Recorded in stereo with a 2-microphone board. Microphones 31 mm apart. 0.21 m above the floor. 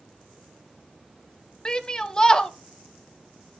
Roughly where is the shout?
Left.